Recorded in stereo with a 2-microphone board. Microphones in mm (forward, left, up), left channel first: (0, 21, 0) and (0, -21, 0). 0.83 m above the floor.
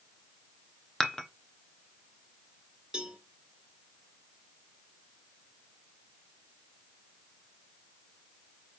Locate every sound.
1.0 s dishes clattering: 15° left (ahead or behind), 0.9 m
2.9 s a cowbell: 15° right (ahead or behind), 1.9 m